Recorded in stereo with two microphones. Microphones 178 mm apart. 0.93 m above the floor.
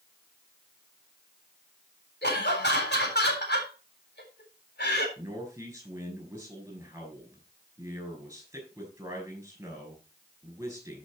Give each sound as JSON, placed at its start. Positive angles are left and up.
{"t": 2.2, "sound": "laughter", "side_deg": 75, "distance_m": 4.0}
{"t": 5.2, "sound": "a man speaking", "side_deg": -15, "distance_m": 6.0}